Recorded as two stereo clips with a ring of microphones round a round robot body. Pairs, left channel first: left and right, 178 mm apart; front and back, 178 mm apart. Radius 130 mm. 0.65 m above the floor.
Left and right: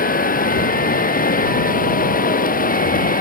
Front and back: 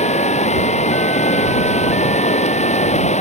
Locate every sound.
0.0 s running water: 50° left